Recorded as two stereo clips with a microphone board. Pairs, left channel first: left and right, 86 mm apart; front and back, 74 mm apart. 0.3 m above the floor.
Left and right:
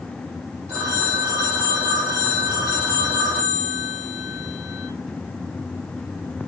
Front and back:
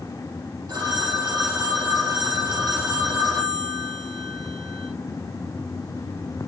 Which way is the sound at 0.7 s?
145° right.